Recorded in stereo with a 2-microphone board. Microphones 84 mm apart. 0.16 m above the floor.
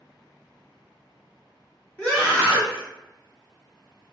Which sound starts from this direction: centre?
A scream, at 2.0 s.